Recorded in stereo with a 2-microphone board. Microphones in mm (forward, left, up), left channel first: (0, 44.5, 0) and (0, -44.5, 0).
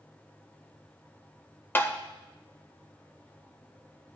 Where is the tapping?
25° left (ahead or behind), 0.7 m.